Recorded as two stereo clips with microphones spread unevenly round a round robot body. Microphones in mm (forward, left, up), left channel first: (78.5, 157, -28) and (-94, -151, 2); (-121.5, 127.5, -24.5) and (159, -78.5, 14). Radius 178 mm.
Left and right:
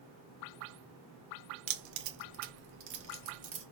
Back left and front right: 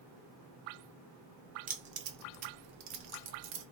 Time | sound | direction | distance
1.7 | keys jangling | 105° right | 1.2 m